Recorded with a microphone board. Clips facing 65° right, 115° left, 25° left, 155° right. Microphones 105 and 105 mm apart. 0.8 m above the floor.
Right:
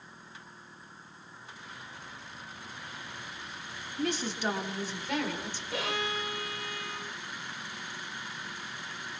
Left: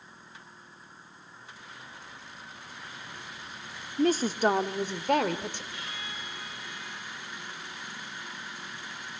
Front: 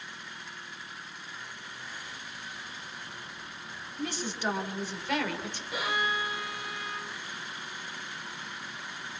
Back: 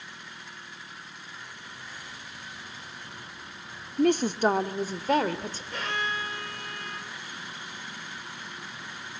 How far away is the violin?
About 1.3 m.